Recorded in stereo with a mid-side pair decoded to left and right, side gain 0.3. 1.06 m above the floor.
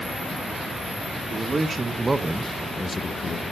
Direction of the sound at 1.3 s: 55° right.